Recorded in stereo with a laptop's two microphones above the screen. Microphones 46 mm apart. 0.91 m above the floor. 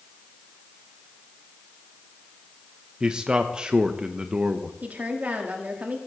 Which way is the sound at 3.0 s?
20° right (ahead or behind).